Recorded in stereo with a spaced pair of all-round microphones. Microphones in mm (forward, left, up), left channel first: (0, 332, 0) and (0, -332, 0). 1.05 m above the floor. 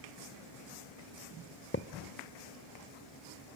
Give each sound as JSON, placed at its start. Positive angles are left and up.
{"t": 1.7, "sound": "a thud", "side_deg": 15, "distance_m": 0.8}